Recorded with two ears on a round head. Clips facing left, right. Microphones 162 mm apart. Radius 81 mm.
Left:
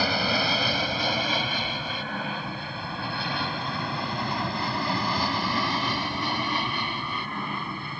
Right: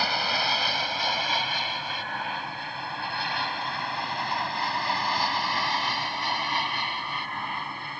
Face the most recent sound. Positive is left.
turn(degrees=80)